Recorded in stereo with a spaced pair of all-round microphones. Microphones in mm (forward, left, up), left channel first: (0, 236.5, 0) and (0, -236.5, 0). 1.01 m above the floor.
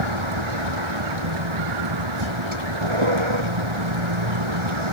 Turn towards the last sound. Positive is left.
turn(degrees=-75)  # may be behind; listen again after turning